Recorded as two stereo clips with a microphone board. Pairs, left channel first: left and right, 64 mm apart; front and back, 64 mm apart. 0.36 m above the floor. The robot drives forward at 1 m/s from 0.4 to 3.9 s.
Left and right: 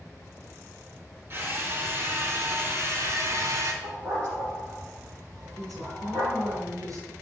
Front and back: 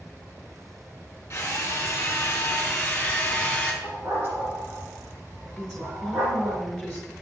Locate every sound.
1.3 s a drill: 45° right, 5 m; by 3.7 s 70° right, 3.5 m
3.8 s a dog barking: 125° right, 5.5 m
5.6 s a woman speaking: 80° right, 6 m